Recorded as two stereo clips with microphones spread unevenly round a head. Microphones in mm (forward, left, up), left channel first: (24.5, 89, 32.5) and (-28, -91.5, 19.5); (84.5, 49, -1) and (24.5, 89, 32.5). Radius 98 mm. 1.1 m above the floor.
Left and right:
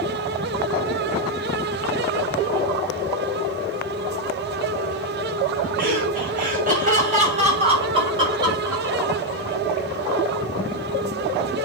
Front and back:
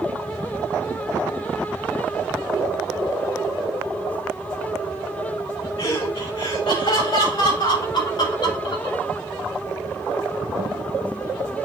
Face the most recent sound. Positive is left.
turn(degrees=-30)